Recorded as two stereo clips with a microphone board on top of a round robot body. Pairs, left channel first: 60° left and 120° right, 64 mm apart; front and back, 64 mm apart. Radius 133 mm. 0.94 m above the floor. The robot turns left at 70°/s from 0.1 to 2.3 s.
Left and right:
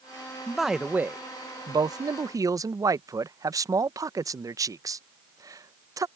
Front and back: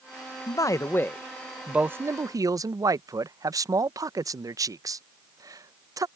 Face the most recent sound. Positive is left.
turn(degrees=-150)